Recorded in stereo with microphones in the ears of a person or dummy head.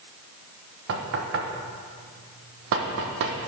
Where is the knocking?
60° right (ahead or behind), 1.0 m.